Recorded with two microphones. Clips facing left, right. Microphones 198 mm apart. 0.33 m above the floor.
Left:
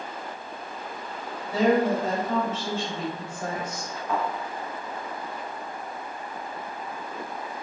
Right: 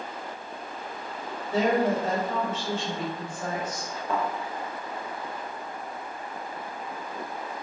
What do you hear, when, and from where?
1.5 s a woman speaking: 25° right (ahead or behind), 1.2 m; by 3.9 s 10° right (ahead or behind), 1.3 m
4.1 s a thud: 55° right (ahead or behind), 1.3 m